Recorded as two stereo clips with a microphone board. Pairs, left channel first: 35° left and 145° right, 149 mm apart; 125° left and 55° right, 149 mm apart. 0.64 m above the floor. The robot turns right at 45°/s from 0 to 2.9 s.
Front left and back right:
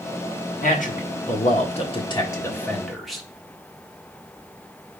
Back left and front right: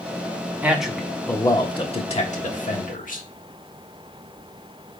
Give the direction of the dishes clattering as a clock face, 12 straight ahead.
I don't hear dishes clattering.